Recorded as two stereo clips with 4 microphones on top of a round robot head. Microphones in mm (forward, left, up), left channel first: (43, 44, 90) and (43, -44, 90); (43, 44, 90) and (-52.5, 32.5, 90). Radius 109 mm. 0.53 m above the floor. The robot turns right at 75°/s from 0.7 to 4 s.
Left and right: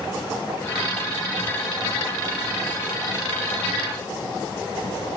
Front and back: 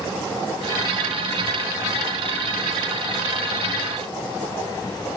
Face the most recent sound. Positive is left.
No sound to turn to.